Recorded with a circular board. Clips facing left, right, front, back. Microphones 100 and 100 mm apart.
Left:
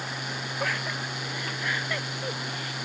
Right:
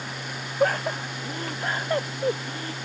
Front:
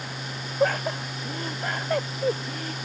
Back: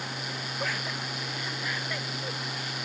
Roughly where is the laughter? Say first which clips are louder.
Right 10 dB, front 12 dB; ahead right.